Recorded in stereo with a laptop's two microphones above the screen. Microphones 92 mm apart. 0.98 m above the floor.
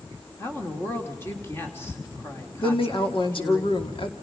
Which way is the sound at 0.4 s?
25° left (ahead or behind).